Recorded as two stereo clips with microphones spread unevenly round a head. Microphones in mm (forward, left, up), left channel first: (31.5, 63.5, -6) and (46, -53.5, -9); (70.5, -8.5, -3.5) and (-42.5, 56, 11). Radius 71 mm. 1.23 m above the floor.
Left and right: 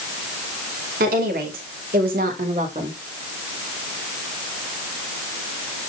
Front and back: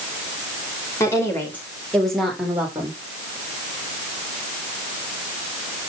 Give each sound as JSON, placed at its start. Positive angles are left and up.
{"t": 1.0, "sound": "a woman speaking", "azimuth_deg": -100, "distance_m": 5.0}